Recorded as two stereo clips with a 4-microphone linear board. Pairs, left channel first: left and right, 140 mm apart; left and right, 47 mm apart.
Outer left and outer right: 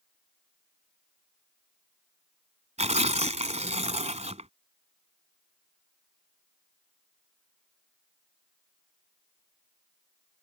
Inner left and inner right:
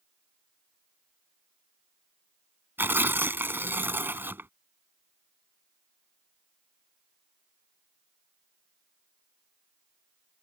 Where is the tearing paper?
50° right (ahead or behind).